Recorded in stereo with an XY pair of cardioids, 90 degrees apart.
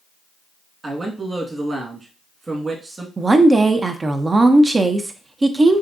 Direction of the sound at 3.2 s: 30° right.